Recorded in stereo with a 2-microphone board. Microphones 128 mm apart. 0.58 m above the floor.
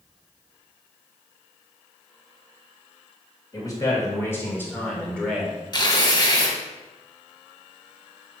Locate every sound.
3.5 s a man speaking: 30° left (ahead or behind), 2.5 m; by 5.6 s centre (ahead or behind), 2 m
5.7 s tearing paper: 35° left (ahead or behind), 1.3 m